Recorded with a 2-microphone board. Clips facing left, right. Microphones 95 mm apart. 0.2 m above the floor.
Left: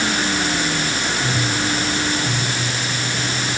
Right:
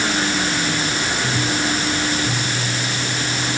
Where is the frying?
No frying in this recording.